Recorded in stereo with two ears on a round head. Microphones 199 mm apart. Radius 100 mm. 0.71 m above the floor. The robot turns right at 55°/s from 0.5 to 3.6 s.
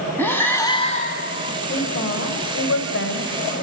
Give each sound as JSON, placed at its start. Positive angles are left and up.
{"t": 0.2, "sound": "breathing", "azimuth_deg": 10, "distance_m": 1.8}
{"t": 1.7, "sound": "a woman speaking", "azimuth_deg": 45, "distance_m": 3.0}